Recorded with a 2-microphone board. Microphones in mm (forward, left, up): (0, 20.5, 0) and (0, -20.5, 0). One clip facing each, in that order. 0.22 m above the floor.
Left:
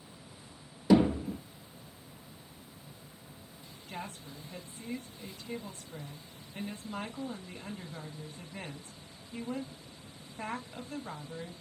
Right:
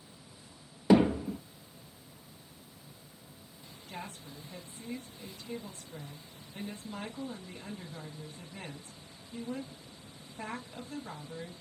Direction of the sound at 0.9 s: 40° right (ahead or behind).